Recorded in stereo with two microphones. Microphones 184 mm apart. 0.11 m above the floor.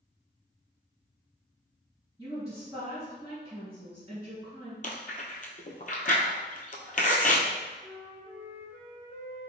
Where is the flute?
5° right (ahead or behind), 1.4 m.